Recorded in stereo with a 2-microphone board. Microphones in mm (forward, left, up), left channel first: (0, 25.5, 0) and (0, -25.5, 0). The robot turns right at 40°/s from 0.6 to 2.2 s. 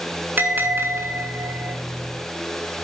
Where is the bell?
135° right, 2.5 m; by 1.8 s 90° right, 2.5 m.